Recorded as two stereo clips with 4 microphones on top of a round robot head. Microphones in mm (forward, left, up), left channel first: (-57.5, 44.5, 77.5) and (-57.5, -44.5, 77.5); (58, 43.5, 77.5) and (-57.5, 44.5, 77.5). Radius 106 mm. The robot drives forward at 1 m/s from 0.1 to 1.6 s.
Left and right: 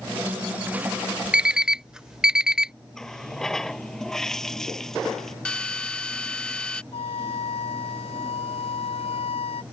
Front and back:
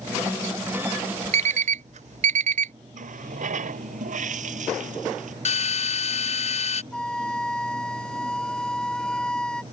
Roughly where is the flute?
Left.